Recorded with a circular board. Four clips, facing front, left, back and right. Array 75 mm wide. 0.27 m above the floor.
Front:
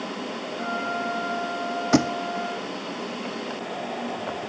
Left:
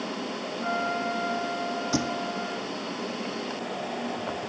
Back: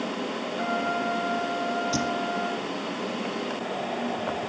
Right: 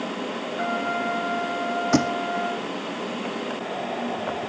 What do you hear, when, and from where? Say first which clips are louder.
0.6 s a trumpet: right 2 dB, back 1 dB; 105° right, 5 m
1.9 s a thud: right 8 dB, front 8 dB; 30° right, 1.5 m